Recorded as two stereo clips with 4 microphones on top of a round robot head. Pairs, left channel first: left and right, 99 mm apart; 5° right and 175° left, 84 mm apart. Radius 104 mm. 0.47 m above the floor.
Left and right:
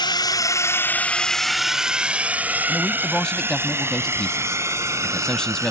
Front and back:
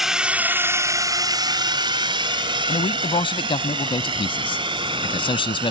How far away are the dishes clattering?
No dishes clattering in this recording.